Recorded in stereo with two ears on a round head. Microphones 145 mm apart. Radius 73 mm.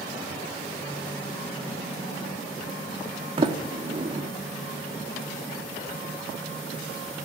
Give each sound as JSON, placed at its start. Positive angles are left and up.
{"t": 3.4, "sound": "a sliding door", "side_deg": -35, "distance_m": 1.2}